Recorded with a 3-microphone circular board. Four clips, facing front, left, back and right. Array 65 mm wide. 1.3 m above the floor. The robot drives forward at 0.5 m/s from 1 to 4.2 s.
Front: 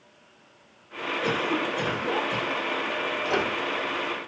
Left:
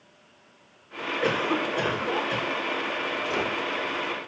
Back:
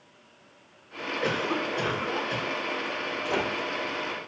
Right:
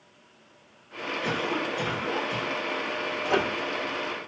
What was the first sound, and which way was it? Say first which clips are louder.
A cough: left 4 dB, front 1 dB; 100° left.